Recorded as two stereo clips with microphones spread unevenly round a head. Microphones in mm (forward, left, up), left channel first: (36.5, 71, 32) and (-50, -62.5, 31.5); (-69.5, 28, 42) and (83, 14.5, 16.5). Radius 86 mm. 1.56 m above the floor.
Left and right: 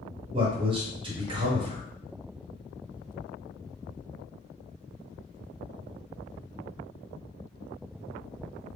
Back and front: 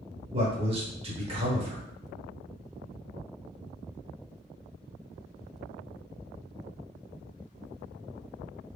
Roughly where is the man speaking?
Ahead right.